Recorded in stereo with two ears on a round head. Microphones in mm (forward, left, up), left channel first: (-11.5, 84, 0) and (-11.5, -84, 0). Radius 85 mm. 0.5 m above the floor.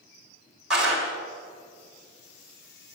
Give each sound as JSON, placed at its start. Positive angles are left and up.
{"t": 0.7, "sound": "a clap", "side_deg": 0, "distance_m": 3.0}